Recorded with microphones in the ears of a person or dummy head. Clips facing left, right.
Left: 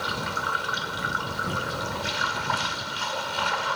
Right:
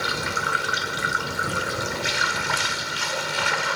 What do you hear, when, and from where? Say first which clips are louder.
0.0 s running water: right 2 dB; 35° right (ahead or behind)